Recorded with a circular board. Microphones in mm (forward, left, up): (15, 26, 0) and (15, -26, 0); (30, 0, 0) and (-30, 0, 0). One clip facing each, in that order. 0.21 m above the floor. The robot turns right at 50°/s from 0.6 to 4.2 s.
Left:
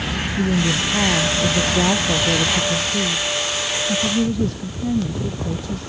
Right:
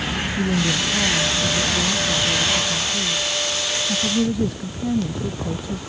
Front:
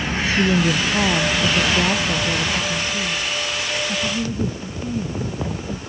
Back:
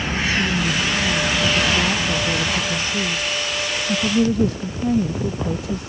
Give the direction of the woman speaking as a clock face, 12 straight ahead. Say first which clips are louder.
Left 2 dB, front 3 dB; 12 o'clock.